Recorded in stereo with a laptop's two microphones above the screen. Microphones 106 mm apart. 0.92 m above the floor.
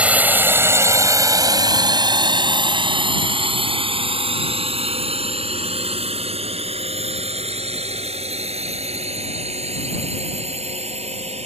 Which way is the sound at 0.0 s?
10° right (ahead or behind).